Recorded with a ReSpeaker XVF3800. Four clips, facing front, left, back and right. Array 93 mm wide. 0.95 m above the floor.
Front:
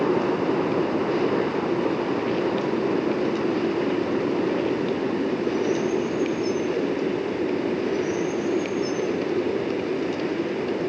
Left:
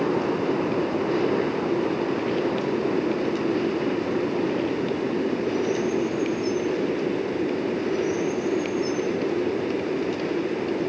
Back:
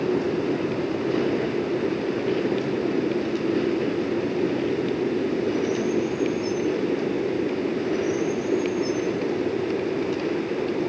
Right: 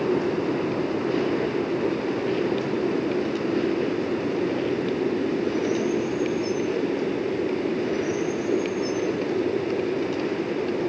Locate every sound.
Only background noise.